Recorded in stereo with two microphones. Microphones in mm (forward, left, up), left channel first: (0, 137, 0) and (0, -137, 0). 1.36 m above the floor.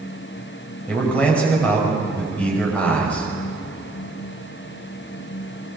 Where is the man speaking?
5° left (ahead or behind), 6.5 m.